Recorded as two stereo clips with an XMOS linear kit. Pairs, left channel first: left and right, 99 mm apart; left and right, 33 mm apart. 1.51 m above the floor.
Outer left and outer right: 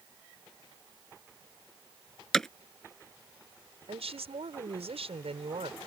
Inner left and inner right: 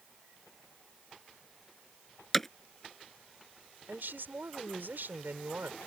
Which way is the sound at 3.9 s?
80° right.